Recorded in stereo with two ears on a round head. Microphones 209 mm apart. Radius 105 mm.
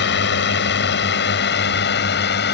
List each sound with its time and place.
0.0 s a drone: 50° left (ahead or behind)